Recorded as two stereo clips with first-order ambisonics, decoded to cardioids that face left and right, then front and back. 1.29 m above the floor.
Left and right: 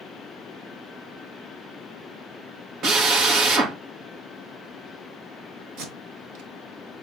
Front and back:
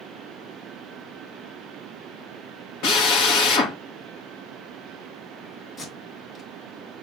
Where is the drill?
35° right, 2.0 m.